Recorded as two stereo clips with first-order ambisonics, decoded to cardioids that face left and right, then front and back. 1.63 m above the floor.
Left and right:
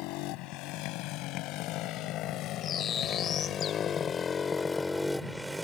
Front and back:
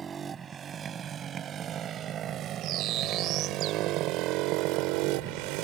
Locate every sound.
0.0 s a motorcycle: 110° left; by 5.7 s 175° right
2.6 s a bird: 145° left